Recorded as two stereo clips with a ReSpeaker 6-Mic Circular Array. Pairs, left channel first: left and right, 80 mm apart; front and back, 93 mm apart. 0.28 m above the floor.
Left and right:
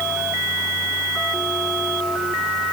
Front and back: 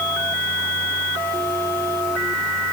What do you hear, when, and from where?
Only background noise.